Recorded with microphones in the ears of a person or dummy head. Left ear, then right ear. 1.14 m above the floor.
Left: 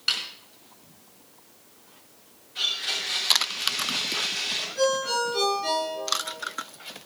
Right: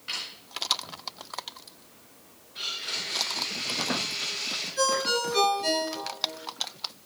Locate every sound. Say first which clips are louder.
0.1 s a snare drum: left 7 dB; 70° left (ahead or behind), 4.5 m
2.5 s a blender: left 5 dB; 25° left (ahead or behind), 5.5 m
4.8 s a ringtone: left 1 dB; 35° right (ahead or behind), 7.5 m